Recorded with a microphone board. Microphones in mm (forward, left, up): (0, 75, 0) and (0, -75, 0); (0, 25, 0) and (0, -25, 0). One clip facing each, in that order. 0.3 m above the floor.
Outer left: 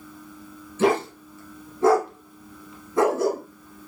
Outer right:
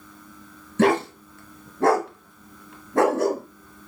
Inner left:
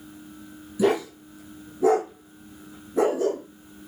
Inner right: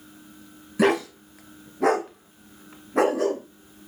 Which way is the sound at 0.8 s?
60° right (ahead or behind).